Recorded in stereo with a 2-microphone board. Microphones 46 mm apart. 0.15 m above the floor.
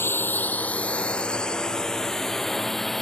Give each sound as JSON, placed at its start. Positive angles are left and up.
{"t": 0.0, "sound": "a drone", "side_deg": 55}